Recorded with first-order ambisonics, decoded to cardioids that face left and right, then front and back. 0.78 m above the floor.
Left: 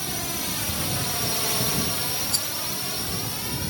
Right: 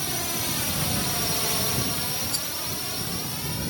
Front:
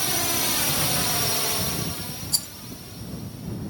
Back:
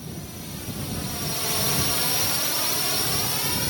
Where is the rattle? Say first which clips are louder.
Left 3 dB, back 1 dB; 20° left.